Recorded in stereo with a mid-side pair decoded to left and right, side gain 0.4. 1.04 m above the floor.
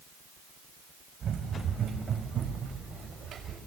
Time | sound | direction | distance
1.2 | running footsteps | 65° right | 4.5 m